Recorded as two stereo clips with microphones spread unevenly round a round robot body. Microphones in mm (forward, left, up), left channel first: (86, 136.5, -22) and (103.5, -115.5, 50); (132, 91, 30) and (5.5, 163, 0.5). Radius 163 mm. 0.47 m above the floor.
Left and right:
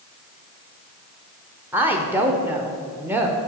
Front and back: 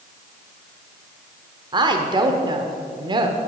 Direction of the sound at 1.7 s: 175° left.